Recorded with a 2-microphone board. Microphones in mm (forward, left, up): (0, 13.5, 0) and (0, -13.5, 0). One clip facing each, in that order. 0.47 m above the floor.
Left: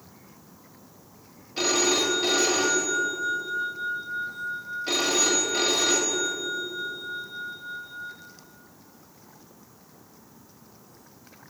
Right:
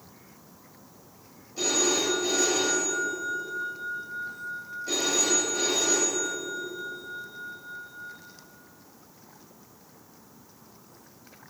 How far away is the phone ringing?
About 1.4 m.